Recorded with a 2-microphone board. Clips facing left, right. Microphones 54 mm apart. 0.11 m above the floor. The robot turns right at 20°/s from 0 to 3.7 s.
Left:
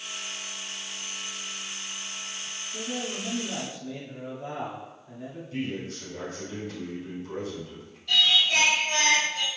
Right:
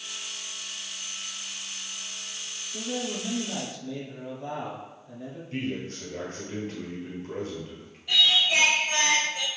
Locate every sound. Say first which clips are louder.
2.7 s a man speaking: right 2 dB; 5° left (ahead or behind), 1.8 m; by 5.4 s 20° left (ahead or behind), 1.8 m
5.5 s a man speaking: right 1 dB; 45° right (ahead or behind), 1.9 m
8.1 s singing: even; 15° right (ahead or behind), 1.2 m